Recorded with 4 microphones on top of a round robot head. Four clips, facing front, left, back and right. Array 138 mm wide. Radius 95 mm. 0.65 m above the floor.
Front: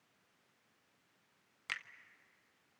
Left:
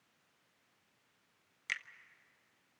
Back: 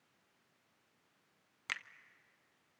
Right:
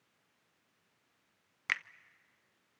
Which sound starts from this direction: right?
A finger snap, at 1.7 s.